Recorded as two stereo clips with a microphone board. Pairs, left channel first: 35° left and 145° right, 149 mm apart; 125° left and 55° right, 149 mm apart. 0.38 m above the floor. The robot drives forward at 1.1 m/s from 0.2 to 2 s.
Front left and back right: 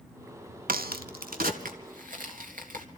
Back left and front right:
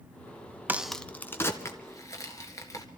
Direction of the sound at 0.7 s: 130° right.